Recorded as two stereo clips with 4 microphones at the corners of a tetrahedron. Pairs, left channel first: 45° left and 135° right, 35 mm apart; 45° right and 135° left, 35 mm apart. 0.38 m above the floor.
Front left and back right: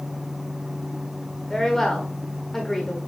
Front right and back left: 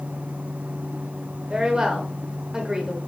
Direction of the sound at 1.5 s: 110° left.